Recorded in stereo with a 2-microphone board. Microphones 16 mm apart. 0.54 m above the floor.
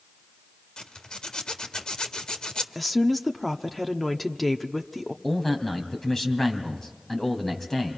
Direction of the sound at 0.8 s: 65° left (ahead or behind).